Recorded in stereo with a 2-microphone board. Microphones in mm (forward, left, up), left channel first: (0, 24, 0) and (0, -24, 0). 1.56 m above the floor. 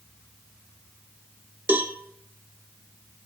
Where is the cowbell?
50° right (ahead or behind), 0.9 m.